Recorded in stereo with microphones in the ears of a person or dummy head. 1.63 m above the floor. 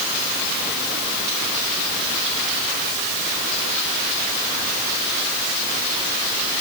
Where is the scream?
I don't hear a scream.